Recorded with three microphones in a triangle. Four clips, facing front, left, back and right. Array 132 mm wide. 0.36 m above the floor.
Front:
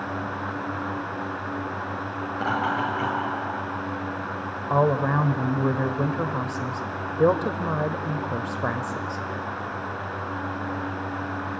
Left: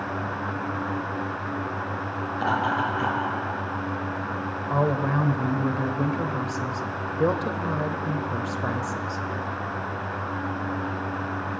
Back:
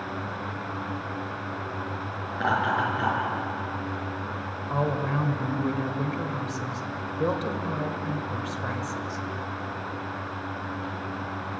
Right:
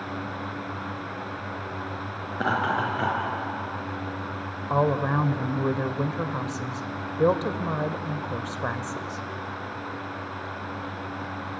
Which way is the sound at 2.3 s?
80° right.